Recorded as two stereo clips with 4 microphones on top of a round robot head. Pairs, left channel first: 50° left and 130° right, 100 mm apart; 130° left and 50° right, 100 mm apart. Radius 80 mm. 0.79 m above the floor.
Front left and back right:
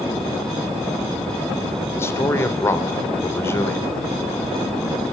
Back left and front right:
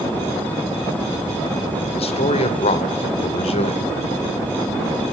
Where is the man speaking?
115° left, 3.5 m.